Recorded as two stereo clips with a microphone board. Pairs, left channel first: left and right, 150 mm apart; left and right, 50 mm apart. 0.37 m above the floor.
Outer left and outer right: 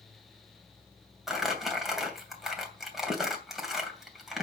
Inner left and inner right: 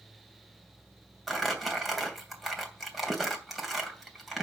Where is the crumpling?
Centre (ahead or behind), 2.5 m.